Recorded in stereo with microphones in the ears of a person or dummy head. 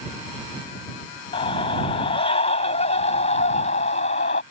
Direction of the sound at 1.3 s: 30° left (ahead or behind).